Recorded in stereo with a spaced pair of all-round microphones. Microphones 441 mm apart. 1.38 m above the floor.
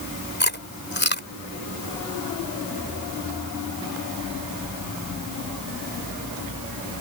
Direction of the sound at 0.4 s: 25° left (ahead or behind).